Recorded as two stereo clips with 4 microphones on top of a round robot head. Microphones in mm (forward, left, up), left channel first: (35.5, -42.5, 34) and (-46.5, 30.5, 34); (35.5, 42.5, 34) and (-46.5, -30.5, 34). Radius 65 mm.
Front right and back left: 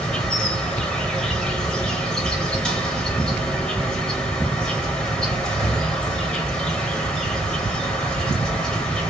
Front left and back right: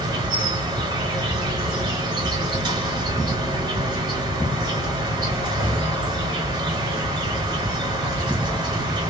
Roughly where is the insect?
Behind right.